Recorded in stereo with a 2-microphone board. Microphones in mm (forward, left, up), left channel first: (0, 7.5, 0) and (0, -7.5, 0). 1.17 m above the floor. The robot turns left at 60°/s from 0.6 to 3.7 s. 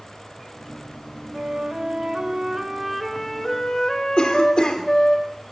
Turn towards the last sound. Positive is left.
turn(degrees=75)  # may be behind; listen again after turning